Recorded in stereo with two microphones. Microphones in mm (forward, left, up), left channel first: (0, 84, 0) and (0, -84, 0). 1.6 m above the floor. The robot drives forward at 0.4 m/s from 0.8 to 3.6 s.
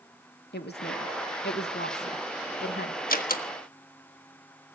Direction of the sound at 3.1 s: 60° left (ahead or behind).